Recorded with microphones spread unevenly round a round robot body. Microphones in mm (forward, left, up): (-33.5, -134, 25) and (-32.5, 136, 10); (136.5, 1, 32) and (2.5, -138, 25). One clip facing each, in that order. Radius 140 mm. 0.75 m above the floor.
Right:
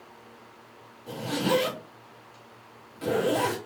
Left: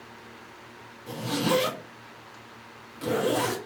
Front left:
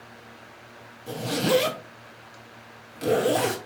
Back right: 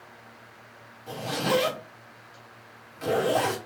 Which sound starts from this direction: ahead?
A zipper, at 1.1 s.